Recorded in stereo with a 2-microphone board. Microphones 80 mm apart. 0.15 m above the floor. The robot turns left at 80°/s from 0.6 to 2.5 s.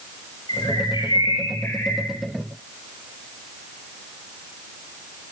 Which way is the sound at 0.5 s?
120° left.